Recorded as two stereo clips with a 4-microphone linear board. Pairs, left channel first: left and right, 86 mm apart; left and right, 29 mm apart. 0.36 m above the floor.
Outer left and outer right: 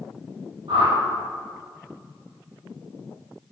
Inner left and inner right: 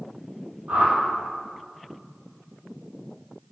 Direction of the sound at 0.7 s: 70° right (ahead or behind).